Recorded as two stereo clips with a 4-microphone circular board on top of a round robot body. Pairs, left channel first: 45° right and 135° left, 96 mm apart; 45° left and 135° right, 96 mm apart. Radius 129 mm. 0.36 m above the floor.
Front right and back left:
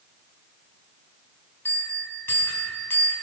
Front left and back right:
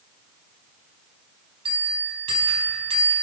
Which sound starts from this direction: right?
A bell, at 1.6 s.